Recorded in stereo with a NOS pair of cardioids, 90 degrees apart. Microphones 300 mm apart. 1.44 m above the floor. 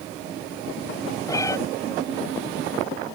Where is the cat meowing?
10° left.